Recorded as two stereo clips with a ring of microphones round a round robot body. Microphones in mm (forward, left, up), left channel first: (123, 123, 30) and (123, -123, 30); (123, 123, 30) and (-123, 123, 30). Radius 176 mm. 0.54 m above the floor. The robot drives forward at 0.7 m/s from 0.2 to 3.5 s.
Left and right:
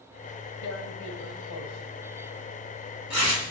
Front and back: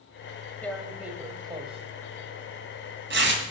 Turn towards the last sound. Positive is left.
turn(degrees=140)